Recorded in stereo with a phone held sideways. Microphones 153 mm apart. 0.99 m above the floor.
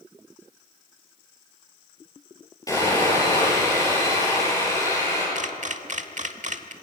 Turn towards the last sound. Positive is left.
turn(degrees=-55)  # may be behind; listen again after turning